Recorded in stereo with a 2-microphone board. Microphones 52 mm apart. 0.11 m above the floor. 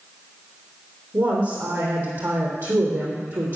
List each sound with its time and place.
1.1 s a woman speaking: 50° right (ahead or behind), 3.5 m